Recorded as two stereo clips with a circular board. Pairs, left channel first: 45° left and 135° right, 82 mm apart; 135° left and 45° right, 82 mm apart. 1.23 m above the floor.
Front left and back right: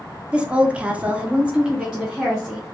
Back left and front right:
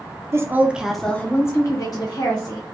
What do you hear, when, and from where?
0.3 s a woman speaking: 65° right, 0.6 m; by 2.7 s 145° left, 1.0 m